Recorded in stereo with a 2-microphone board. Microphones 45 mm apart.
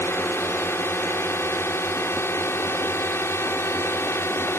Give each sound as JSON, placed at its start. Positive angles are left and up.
{"t": 0.0, "sound": "a drone", "side_deg": 65}